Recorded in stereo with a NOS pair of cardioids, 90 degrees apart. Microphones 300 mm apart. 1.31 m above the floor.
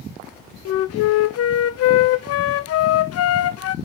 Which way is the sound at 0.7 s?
55° left.